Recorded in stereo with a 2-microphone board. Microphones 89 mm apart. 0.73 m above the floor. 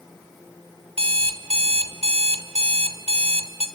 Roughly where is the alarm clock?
Right.